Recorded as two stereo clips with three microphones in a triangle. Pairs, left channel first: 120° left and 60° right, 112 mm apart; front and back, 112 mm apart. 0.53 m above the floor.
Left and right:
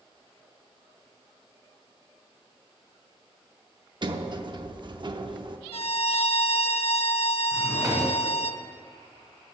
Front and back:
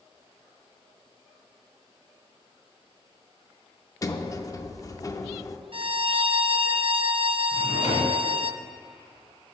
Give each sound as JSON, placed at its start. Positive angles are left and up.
{"t": 4.0, "sound": "a sliding door", "azimuth_deg": -45, "distance_m": 0.6}
{"t": 5.7, "sound": "a violin", "azimuth_deg": 145, "distance_m": 0.5}
{"t": 7.5, "sound": "a drawer", "azimuth_deg": 0, "distance_m": 2.0}